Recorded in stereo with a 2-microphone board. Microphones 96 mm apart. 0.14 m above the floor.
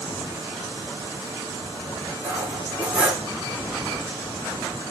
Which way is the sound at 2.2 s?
15° right (ahead or behind).